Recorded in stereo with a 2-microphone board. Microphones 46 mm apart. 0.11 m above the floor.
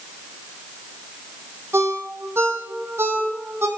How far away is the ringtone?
About 1.6 m.